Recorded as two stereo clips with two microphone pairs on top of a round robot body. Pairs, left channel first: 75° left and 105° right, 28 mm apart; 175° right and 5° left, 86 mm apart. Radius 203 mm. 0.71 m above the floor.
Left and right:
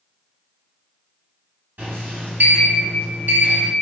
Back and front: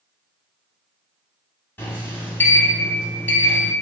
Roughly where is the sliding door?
Right.